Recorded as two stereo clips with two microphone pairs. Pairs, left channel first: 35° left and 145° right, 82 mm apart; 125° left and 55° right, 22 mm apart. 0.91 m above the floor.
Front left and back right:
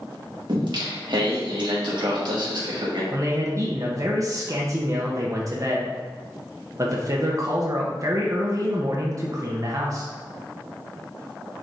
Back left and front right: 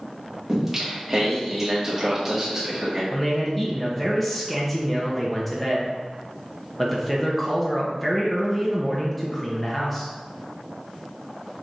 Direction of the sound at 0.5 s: 120° right.